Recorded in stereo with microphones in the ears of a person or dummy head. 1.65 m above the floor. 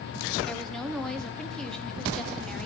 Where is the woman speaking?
5° left (ahead or behind), 0.8 m.